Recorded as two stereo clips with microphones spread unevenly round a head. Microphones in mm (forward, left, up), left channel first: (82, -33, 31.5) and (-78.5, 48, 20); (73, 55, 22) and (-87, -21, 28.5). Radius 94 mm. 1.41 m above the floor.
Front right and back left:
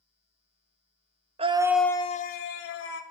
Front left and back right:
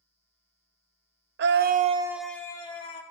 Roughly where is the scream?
Behind right.